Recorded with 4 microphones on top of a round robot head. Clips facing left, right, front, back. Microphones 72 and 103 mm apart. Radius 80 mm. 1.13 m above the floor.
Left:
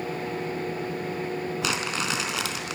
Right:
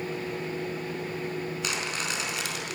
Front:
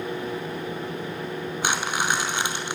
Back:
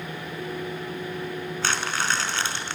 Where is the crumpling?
75° left, 4.5 m.